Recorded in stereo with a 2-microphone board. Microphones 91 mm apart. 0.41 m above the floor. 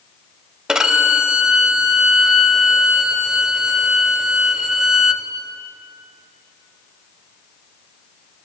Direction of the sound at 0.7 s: 10° right (ahead or behind).